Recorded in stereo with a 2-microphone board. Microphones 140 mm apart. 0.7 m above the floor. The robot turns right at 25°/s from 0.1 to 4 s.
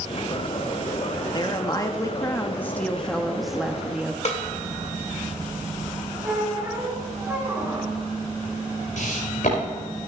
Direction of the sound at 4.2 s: 50° left (ahead or behind).